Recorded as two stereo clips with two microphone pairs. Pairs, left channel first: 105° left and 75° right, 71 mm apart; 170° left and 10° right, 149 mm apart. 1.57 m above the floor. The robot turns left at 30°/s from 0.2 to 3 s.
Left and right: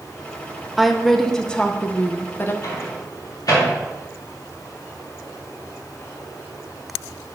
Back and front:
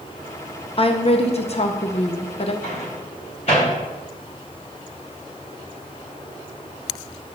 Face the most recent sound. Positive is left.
turn(degrees=125)